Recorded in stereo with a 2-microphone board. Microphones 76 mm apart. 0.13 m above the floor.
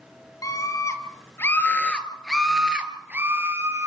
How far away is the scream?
About 4 m.